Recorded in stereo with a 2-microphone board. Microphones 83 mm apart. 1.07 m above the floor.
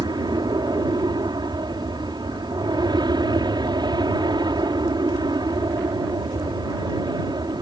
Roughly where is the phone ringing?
No phone ringing in this recording.